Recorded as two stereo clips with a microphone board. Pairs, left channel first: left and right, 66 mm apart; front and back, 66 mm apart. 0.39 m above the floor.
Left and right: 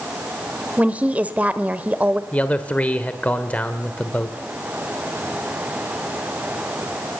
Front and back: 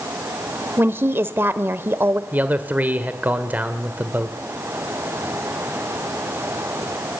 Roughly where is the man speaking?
Behind left.